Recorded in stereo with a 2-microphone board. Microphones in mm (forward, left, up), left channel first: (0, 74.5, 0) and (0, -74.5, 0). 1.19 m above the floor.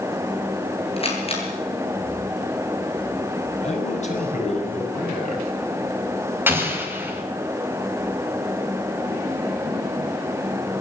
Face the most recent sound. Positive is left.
turn(degrees=-15)  # may be behind; listen again after turning